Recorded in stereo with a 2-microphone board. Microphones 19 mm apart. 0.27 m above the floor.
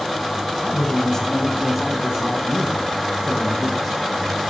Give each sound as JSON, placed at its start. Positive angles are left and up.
{"t": 0.6, "sound": "a man speaking", "side_deg": 45, "distance_m": 1.4}